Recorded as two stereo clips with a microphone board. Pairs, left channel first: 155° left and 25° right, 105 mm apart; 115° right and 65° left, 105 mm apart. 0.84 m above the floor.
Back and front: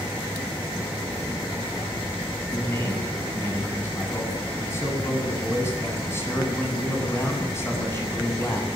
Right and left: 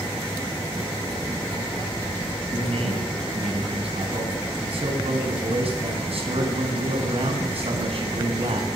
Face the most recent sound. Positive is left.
turn(degrees=90)